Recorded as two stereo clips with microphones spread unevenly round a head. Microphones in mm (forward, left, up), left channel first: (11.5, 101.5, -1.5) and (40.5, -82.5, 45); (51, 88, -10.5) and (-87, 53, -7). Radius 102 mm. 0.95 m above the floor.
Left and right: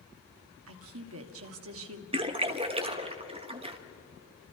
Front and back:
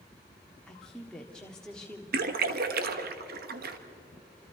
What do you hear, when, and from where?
0.7 s a woman speaking: 70° right, 1.7 m
2.1 s a splash: 150° right, 1.3 m